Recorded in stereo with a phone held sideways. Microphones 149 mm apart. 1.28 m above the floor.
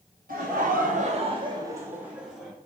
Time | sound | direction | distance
0.3 | laughter | 80° right | 0.9 m